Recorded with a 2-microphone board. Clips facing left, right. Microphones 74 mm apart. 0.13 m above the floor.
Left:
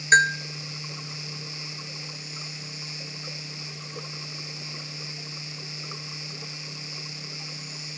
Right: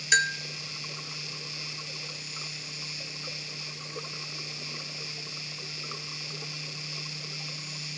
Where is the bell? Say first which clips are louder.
Left 7 dB; 35° left (ahead or behind), 0.6 m.